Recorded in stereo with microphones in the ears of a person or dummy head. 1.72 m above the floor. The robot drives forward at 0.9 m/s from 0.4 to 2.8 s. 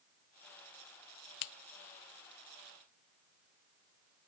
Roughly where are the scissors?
Left.